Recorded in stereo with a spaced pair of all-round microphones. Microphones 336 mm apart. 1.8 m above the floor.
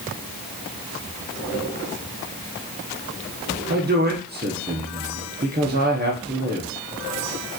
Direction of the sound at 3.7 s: 30° right (ahead or behind).